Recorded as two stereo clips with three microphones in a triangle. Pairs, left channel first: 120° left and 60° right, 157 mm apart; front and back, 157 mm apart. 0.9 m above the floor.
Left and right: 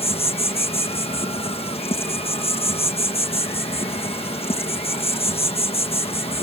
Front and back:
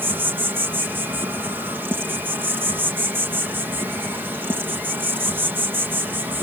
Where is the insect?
110° left.